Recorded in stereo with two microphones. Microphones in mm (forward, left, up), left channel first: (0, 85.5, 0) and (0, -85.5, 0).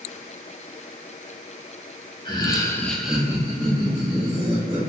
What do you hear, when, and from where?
2.2 s laughter: 30° left (ahead or behind), 0.8 m; by 4.8 s 35° right (ahead or behind), 1.6 m